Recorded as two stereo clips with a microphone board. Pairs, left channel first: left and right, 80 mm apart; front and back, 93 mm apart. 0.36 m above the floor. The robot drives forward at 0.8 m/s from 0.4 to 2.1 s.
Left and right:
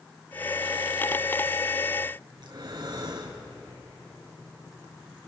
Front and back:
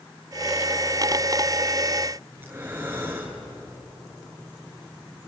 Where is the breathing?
115° right, 3 m.